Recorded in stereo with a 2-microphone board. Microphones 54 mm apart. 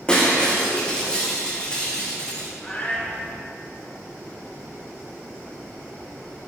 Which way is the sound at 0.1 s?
15° left (ahead or behind).